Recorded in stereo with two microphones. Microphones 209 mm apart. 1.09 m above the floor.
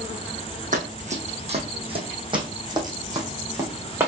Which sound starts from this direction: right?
Running footsteps, at 0.7 s.